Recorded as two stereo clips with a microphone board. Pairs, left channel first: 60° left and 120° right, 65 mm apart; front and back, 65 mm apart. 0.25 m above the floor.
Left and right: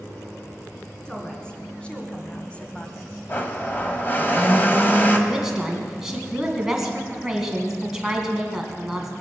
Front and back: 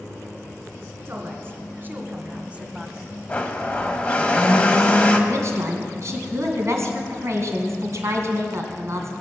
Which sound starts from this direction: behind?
A woman speaking, at 5.3 s.